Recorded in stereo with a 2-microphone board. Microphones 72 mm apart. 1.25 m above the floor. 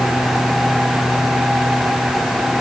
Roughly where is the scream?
I don't hear a scream.